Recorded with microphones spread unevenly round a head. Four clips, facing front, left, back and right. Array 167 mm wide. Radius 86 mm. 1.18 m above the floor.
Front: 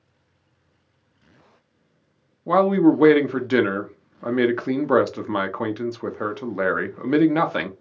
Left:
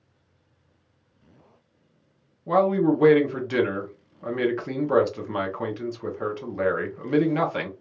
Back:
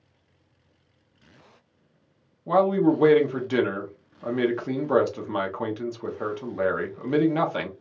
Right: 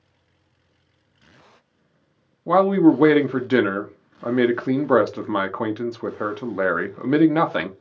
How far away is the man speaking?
About 0.6 m.